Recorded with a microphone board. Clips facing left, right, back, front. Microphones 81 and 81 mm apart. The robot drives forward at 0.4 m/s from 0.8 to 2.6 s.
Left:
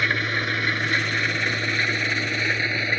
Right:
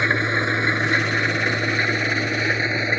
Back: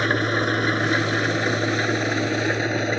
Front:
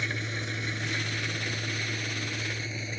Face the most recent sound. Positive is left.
turn(degrees=-160)